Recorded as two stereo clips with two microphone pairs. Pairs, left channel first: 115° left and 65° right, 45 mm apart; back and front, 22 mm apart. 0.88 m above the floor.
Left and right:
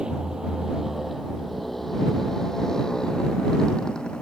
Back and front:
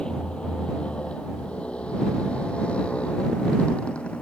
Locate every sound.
0.0 s a motorcycle: 135° right; by 4.2 s 175° right